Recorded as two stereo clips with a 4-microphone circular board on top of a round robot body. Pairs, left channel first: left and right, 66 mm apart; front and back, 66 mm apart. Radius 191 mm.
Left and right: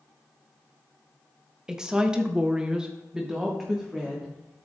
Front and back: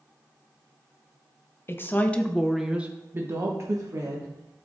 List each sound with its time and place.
1.7 s a woman speaking: 20° right, 1.2 m; by 4.6 s 175° right, 2.0 m